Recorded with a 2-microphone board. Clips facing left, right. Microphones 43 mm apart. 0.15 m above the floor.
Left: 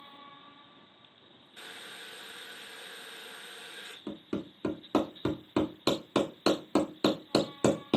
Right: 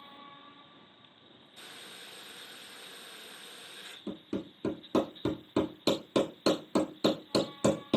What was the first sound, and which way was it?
Boiling, 40° left (ahead or behind).